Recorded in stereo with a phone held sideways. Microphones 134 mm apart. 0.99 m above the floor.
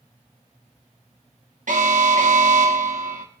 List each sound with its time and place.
1.7 s an alarm: 75° right (ahead or behind), 2 m